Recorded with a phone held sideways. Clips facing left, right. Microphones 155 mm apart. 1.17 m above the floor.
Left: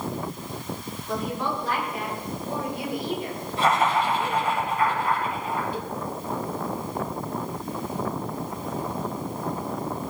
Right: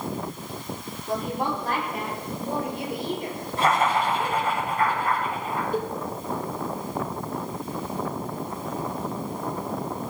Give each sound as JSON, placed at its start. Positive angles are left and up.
{"t": 1.1, "sound": "a woman speaking", "side_deg": -50, "distance_m": 3.5}
{"t": 3.6, "sound": "laughter", "side_deg": -50, "distance_m": 6.5}
{"t": 5.7, "sound": "a cowbell", "side_deg": -50, "distance_m": 1.1}